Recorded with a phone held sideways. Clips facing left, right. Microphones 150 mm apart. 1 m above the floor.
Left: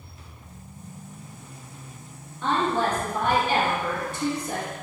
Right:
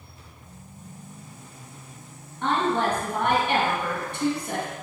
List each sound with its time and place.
2.4 s a woman speaking: 65° right (ahead or behind), 1.3 m